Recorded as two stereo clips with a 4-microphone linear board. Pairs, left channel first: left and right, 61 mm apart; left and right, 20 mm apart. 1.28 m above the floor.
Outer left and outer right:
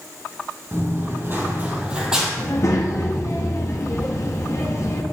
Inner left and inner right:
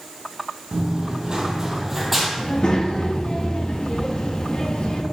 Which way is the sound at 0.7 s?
45° right (ahead or behind).